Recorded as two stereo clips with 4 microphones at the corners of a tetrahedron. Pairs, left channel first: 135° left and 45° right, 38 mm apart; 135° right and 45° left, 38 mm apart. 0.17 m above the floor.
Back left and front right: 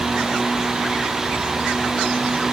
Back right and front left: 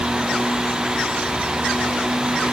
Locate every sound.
Only background noise.